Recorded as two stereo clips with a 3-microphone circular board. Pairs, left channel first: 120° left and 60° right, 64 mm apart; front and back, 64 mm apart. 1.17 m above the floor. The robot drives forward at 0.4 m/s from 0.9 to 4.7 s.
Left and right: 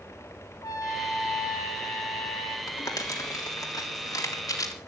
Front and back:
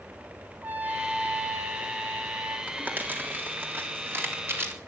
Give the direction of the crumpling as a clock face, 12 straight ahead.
8 o'clock.